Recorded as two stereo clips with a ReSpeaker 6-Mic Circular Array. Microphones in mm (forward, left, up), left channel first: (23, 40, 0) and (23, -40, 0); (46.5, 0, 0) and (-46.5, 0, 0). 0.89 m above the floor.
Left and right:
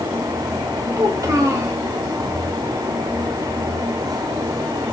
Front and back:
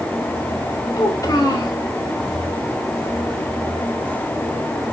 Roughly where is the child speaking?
Ahead right.